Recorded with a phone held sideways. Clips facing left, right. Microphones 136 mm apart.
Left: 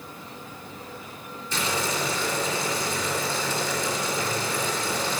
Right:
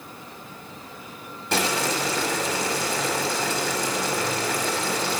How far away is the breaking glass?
I don't hear breaking glass.